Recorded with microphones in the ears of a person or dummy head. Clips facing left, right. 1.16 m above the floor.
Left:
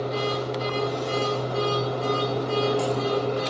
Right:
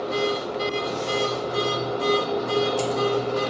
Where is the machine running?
60° right (ahead or behind), 1.3 m.